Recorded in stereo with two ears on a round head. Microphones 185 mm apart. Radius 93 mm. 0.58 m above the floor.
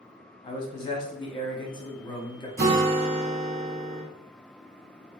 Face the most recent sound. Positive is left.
turn(degrees=-45)  # may be behind; listen again after turning